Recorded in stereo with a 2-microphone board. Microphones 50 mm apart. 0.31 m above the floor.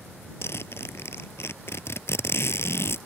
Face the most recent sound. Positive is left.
turn(degrees=55)  # may be behind; listen again after turning